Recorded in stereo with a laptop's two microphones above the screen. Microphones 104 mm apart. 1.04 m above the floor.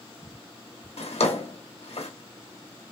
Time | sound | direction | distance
1.0 | a drawer | 75° left (ahead or behind) | 1.1 m